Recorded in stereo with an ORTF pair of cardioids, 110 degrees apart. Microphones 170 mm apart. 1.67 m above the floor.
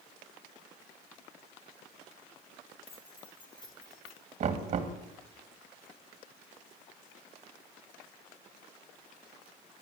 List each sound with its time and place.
2.9 s keys jangling: 35° left, 3.5 m; by 4.3 s 20° left, 4 m
4.4 s knocking: 45° right, 2.5 m